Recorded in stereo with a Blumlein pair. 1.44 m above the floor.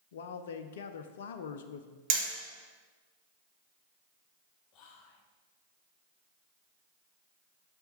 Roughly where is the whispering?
Ahead left.